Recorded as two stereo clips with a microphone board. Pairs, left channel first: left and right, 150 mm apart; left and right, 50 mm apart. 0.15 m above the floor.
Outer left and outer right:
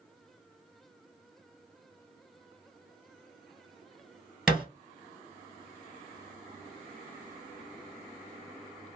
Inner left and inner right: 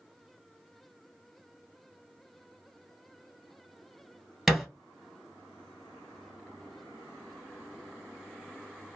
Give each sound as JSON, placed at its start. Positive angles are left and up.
{"t": 4.5, "sound": "a thud", "side_deg": -5, "distance_m": 1.5}